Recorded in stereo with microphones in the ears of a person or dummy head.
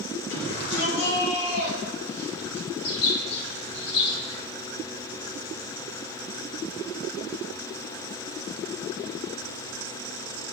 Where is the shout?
55° left (ahead or behind), 5 m.